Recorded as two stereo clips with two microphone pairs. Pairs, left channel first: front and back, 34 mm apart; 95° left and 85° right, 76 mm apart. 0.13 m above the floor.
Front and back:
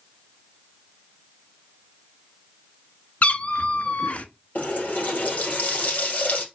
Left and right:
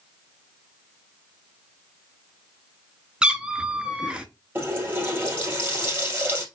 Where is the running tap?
30° right, 2 m.